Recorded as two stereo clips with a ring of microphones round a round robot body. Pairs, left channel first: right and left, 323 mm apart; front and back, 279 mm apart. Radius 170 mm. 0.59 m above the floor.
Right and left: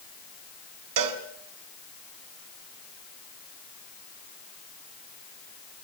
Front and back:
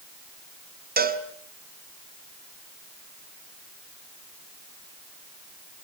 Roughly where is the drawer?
No drawer in this recording.